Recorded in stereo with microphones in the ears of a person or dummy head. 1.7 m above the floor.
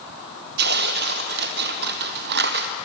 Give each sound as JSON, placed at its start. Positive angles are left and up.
{"t": 0.6, "sound": "tearing paper", "side_deg": -50, "distance_m": 1.8}